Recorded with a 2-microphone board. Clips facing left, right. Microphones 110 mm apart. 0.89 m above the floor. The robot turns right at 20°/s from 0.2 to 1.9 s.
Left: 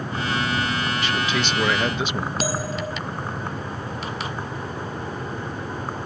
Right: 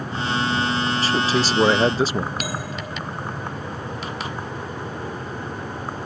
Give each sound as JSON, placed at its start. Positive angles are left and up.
{"t": 1.0, "sound": "a man speaking", "side_deg": -35}
{"t": 2.4, "sound": "a bell", "side_deg": 30}